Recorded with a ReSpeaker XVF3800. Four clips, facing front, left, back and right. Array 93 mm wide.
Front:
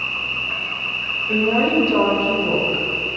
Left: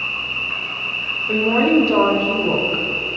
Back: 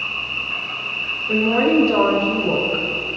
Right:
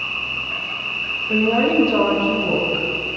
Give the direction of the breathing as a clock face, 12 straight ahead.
No breathing in this recording.